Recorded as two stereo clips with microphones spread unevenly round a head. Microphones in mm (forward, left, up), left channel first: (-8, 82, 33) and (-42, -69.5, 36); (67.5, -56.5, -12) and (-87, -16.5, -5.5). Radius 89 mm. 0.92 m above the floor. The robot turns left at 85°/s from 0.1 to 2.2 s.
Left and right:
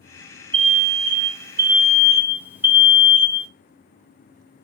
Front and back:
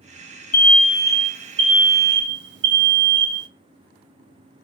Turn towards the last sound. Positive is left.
turn(degrees=180)